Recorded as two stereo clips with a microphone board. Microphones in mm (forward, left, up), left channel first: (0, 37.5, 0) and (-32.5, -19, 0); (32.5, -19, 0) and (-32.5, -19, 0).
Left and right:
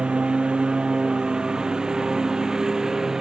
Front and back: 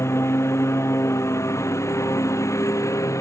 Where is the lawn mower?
45° right; by 3.2 s 35° right.